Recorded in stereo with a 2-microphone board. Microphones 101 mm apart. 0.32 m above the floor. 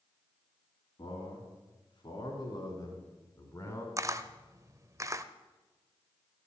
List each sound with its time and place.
1.0 s a man speaking: 55° left (ahead or behind), 4.5 m; by 3.9 s 30° left (ahead or behind), 3.5 m
4.0 s a camera shutter: 30° right (ahead or behind), 0.6 m